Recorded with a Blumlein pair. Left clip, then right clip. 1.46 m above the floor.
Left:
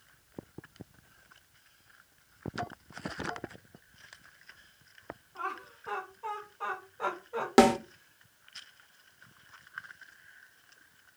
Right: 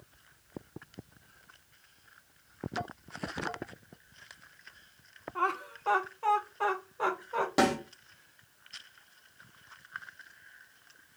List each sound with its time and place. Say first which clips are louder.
5.3 s laughter: right 7 dB; 65° right, 1.1 m; by 7.5 s 10° right, 1.5 m
7.6 s a snare drum: left 6 dB; 40° left, 0.9 m